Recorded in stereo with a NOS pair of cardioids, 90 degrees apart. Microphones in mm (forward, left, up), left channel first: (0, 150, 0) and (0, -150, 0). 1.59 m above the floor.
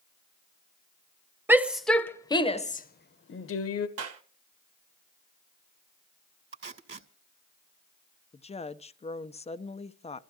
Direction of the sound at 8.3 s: 20° left.